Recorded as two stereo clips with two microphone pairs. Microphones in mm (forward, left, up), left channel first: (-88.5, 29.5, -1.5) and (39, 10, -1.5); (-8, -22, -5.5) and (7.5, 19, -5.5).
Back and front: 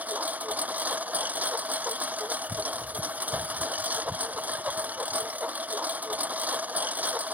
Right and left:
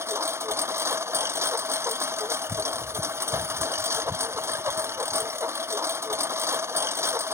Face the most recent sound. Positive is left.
turn(degrees=70)